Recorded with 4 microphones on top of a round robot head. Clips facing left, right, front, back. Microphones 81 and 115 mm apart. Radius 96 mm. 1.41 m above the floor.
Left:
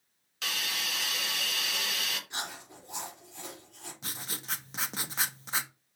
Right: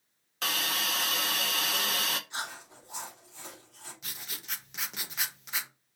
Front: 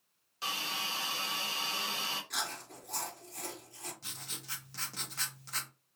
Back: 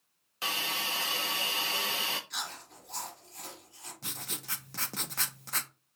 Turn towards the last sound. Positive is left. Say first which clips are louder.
# left 5 dB, back 6 dB
turn(degrees=145)